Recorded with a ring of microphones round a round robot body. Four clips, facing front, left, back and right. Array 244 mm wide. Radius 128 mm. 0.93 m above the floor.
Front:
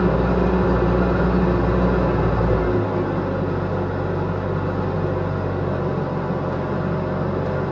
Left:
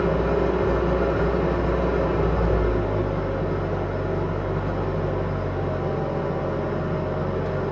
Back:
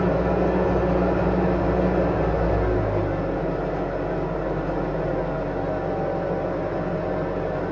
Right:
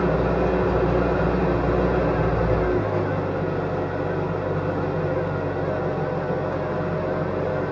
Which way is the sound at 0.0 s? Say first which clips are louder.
Right 1 dB, front 2 dB; 5° right.